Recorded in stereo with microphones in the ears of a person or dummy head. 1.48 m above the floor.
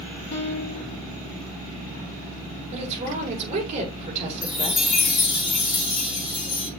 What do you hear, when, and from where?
0.3 s a piano: 70° left (ahead or behind), 3.5 m
2.7 s a woman speaking: 35° right (ahead or behind), 4.5 m
4.4 s a chime: centre (ahead or behind), 4.5 m